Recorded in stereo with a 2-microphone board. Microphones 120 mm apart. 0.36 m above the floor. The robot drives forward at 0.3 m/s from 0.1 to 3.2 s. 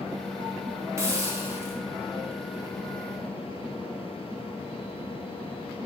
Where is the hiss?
25° right (ahead or behind), 1.1 m; by 1.8 s 20° right (ahead or behind), 1.2 m.